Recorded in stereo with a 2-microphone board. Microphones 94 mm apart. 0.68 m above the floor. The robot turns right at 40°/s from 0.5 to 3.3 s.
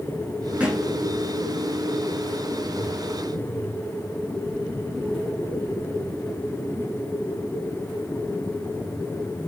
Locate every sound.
0.6 s a thud: 15° right (ahead or behind), 4.5 m; by 0.9 s centre (ahead or behind), 4.5 m